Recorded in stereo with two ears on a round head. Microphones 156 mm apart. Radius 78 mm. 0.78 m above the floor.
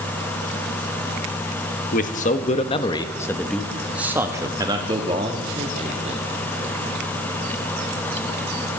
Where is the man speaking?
50° left (ahead or behind), 1.1 m; by 6.2 s 40° right (ahead or behind), 1.8 m.